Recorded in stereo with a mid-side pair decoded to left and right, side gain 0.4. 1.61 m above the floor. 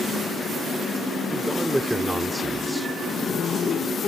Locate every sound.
1.3 s a man speaking: 10° right; by 2.9 s 5° left
3.0 s a zipper: 60° left